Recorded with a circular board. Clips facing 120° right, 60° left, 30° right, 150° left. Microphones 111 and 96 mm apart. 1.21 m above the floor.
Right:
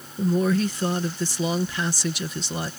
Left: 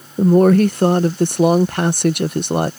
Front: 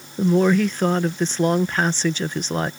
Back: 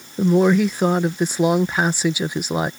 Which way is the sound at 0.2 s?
70° left.